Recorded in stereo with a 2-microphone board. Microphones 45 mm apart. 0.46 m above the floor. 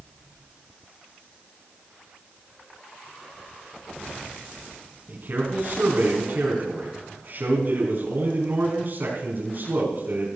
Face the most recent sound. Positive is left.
turn(degrees=-50)  # may be behind; listen again after turning